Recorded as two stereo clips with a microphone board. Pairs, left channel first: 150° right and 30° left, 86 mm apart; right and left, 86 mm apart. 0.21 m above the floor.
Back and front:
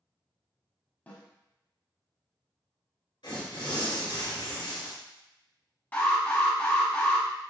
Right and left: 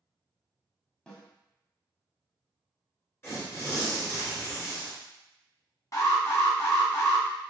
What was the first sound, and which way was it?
A snare drum, 150° right.